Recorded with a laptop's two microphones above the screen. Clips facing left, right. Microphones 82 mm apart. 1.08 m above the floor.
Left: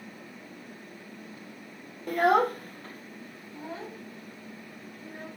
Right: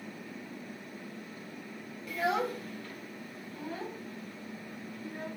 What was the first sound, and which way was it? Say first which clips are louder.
A child speaking: left 8 dB; 50° left (ahead or behind).